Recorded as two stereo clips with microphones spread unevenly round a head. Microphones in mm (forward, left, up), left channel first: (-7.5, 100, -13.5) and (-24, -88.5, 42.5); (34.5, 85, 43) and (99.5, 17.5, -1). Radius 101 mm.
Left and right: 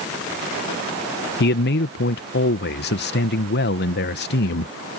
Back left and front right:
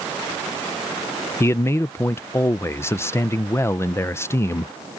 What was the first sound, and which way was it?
A man speaking, 60° left.